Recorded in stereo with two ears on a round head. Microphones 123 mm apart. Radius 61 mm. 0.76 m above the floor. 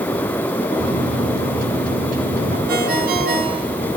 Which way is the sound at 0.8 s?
65° right (ahead or behind).